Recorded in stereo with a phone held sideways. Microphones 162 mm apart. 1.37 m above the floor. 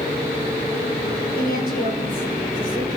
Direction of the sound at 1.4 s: 60° left (ahead or behind).